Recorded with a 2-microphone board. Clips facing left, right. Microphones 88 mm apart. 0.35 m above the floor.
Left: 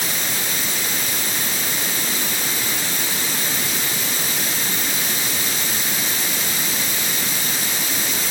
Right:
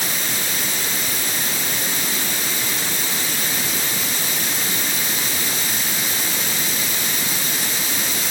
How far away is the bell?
I don't hear a bell.